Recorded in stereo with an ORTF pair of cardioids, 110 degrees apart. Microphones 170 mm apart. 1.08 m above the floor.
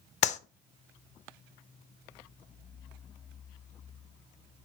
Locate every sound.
0.2 s a clap: 45° left, 0.6 m